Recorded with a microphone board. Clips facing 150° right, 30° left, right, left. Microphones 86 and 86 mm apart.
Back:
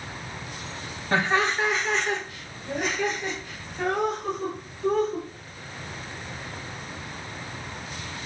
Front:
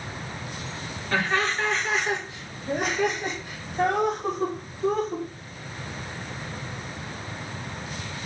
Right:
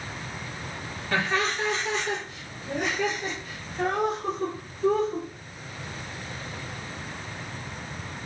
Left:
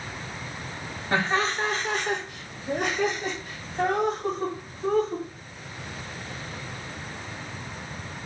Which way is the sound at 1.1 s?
150° left.